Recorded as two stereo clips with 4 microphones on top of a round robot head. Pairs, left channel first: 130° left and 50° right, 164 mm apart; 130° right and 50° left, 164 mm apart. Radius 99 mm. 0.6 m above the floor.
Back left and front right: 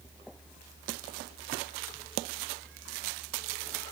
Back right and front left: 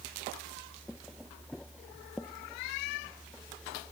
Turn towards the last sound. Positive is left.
No sound to turn to.